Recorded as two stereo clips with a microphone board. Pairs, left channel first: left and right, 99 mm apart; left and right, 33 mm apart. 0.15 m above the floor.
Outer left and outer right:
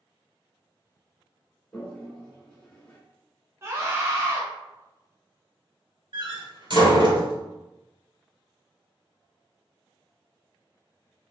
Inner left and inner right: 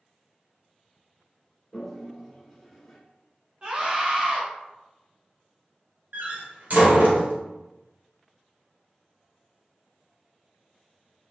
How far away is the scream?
About 1.2 m.